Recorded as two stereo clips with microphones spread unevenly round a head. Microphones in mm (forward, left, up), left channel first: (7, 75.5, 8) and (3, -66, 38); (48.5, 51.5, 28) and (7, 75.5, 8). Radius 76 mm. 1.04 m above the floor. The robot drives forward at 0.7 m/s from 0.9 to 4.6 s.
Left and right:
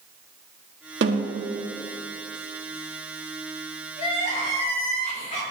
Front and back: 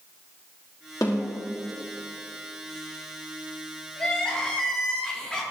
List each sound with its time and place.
1.0 s a snare drum: 90° right, 1.6 m; by 1.4 s 100° right, 1.6 m
4.0 s crying: 45° left, 4 m; by 5.4 s 50° left, 4 m